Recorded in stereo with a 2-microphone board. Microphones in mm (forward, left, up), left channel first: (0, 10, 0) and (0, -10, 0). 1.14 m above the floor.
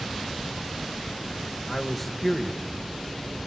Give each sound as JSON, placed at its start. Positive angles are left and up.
{"t": 1.7, "sound": "a man speaking", "side_deg": 5, "distance_m": 1.5}